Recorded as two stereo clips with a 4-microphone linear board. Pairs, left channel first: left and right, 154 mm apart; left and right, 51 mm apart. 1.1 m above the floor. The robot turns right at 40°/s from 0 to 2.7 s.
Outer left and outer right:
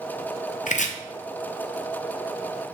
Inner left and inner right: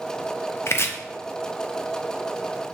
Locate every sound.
0.7 s chopping: 55° left (ahead or behind), 0.8 m; by 0.9 s 50° left (ahead or behind), 0.8 m